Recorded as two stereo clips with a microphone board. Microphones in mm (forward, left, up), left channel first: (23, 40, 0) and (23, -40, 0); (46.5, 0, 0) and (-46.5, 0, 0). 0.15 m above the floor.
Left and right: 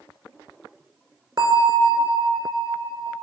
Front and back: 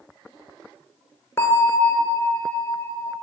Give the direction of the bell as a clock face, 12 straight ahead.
2 o'clock.